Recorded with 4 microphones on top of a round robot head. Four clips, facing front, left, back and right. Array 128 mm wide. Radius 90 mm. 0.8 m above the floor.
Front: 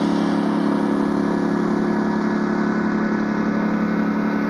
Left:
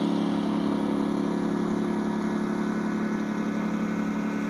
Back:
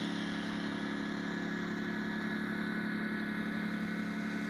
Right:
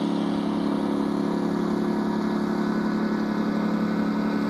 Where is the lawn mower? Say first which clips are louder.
Right 1 dB, front 18 dB; straight ahead; by 4.5 s 15° right.